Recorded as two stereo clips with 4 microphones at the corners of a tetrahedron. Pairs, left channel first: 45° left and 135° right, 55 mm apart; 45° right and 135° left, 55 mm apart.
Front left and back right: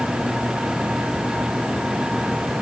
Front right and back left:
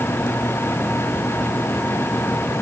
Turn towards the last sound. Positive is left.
No sound to turn to.